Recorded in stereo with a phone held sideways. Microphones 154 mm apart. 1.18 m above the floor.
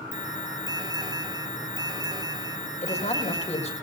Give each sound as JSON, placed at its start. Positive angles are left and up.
{"t": 0.1, "sound": "an alarm", "side_deg": -25, "distance_m": 3.0}
{"t": 2.8, "sound": "a man speaking", "side_deg": 45, "distance_m": 5.5}